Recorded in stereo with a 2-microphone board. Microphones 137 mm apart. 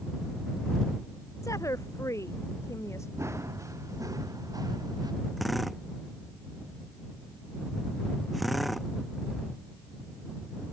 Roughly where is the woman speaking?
Left.